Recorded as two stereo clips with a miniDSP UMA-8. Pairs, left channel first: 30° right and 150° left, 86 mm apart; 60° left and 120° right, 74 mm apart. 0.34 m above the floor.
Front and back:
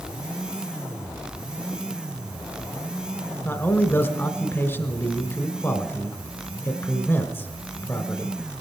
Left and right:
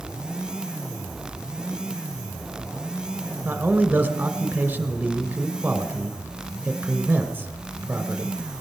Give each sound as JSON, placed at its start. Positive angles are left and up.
{"t": 3.5, "sound": "a man speaking", "azimuth_deg": -70, "distance_m": 1.3}